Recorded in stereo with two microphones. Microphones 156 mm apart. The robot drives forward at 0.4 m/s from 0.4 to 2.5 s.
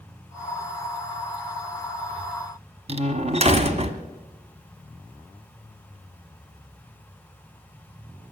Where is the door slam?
45° right (ahead or behind), 1.3 m.